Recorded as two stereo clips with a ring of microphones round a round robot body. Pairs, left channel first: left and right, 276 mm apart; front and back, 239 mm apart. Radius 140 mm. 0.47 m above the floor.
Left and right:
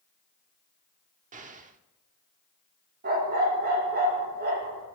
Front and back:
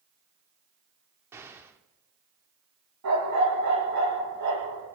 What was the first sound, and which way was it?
An explosion, 110° right.